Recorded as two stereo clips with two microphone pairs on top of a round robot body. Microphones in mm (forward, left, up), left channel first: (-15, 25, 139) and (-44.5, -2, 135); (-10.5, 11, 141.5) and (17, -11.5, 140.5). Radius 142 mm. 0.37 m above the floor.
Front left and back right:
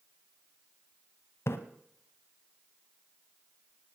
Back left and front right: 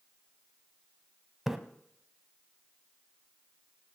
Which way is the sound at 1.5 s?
45° left.